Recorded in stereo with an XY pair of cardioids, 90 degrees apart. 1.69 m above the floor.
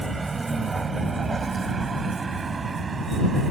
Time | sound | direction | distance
0.0 | a vehicle | 30° right | ?